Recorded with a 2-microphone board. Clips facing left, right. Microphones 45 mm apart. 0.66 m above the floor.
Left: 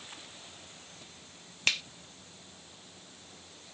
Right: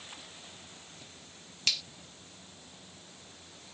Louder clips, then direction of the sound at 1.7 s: Left 4 dB; 45° left (ahead or behind).